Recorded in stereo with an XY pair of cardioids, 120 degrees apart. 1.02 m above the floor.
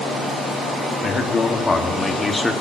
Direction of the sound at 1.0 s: 40° left.